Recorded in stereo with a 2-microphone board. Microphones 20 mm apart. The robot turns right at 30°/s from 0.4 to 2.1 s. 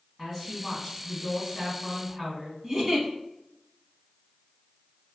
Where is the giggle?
30° right (ahead or behind), 0.9 m.